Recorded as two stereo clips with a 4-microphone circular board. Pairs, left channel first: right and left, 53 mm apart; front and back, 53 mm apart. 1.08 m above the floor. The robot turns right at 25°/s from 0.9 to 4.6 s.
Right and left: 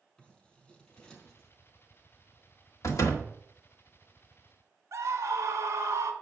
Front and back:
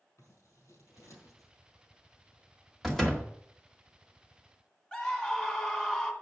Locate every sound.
0.2 s scissors: 20° right, 4.5 m; by 1.5 s 5° right, 4.5 m
2.8 s a door slam: 85° right, 1.7 m; by 3.3 s 70° right, 1.7 m
4.9 s a scream: 70° left, 2 m